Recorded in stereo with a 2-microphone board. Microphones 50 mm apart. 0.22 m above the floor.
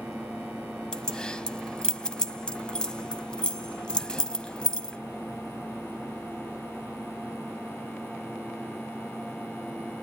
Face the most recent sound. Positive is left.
turn(degrees=15)  # may be behind; listen again after turning